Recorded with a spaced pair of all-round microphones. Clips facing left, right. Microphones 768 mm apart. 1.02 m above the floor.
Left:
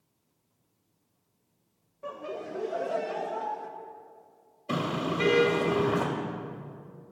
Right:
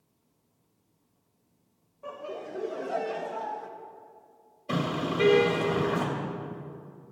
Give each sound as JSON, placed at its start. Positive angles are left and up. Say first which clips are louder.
{"t": 2.0, "sound": "laughter", "louder": "left 1 dB", "side_deg": 50, "distance_m": 1.1}
{"t": 4.7, "sound": "a car horn", "louder": "right 1 dB", "side_deg": 0, "distance_m": 2.5}